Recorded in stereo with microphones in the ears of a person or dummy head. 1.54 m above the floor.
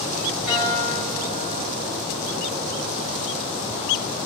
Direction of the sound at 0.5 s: 10° right (ahead or behind).